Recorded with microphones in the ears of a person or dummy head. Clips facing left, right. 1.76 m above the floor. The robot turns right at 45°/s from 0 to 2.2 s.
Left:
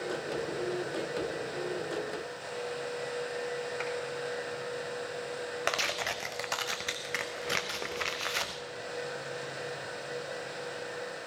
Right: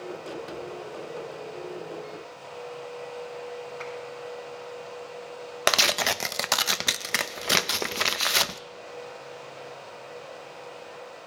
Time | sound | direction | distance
3.8 | a clap | 30° left (ahead or behind) | 4.5 m
5.7 | tearing paper | 65° right (ahead or behind) | 0.5 m